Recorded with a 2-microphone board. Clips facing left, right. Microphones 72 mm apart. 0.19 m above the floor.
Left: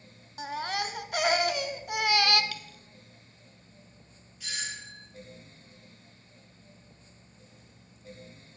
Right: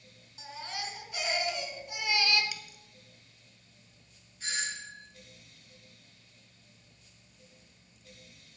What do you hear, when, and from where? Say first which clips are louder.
0.4 s a baby crying: left 8 dB; 60° left (ahead or behind), 0.6 m
2.5 s a dropped coin: left 3 dB; 15° right (ahead or behind), 1.2 m
4.4 s a doorbell: right 2 dB; 40° right (ahead or behind), 3.5 m